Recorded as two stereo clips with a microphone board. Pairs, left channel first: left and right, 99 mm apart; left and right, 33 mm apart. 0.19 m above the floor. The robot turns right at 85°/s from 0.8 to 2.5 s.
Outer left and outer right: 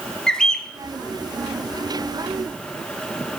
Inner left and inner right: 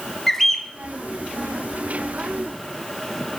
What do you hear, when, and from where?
0.3 s a bird: 5° left (ahead or behind), 1.0 m